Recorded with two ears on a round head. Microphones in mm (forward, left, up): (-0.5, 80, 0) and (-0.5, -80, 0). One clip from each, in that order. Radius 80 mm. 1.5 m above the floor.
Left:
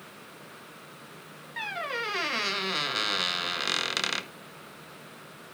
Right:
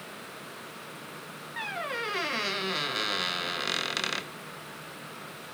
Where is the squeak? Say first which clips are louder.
Left 1 dB; 15° left (ahead or behind), 0.6 m.